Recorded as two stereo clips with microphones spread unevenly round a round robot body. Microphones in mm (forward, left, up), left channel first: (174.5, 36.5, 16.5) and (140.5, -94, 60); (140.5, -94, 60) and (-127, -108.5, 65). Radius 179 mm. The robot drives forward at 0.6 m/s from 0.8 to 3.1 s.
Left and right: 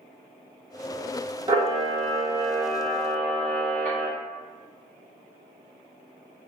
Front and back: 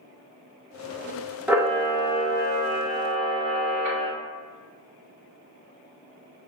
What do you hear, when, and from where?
1.5 s a camera shutter: 95° right, 0.6 m; by 4.1 s 160° right, 1.1 m